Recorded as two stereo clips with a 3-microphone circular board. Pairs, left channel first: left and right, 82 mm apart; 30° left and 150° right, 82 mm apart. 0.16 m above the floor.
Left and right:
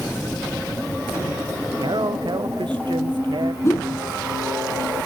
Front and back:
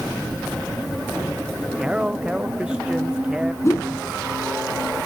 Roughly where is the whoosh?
Ahead left.